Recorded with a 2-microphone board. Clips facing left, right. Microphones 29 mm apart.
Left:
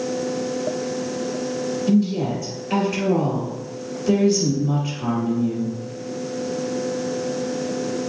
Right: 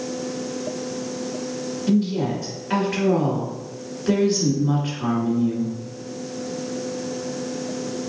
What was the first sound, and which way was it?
A woman speaking, 40° right (ahead or behind).